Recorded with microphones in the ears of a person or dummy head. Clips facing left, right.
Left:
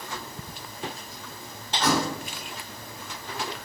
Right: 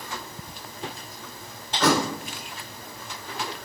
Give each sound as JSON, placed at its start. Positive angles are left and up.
{"t": 1.8, "sound": "a thud", "side_deg": -60, "distance_m": 1.8}